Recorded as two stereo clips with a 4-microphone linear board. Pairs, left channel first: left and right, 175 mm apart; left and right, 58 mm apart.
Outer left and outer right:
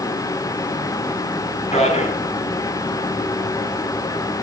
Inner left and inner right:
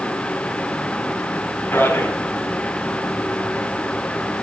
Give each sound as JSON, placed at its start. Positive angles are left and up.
{"t": 1.7, "sound": "a man speaking", "side_deg": 35, "distance_m": 2.5}